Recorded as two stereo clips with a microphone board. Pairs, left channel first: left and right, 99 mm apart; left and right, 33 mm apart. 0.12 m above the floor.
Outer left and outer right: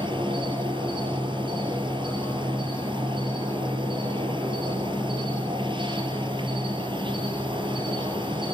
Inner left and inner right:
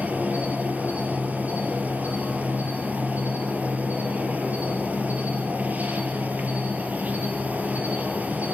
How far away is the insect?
About 2.0 m.